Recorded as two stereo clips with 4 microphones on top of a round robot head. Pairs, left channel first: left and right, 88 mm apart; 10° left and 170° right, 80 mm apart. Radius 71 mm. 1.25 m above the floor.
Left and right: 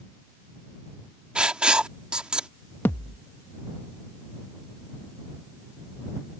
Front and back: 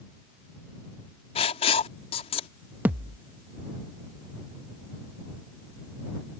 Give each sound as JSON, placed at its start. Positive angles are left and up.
{"t": 1.4, "sound": "writing", "azimuth_deg": -10}
{"t": 2.9, "sound": "a thud", "azimuth_deg": 145}